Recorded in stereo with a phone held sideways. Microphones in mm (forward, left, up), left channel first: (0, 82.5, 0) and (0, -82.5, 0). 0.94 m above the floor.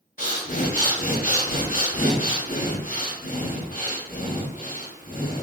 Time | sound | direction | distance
0.2 | breathing | 55° left (ahead or behind) | 0.7 m